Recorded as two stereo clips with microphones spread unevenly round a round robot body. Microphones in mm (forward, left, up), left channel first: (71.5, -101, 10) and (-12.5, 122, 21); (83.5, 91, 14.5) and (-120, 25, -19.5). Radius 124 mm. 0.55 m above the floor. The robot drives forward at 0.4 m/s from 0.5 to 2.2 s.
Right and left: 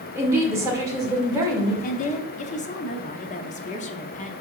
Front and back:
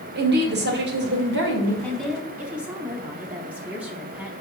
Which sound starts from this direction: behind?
A woman speaking, at 0.1 s.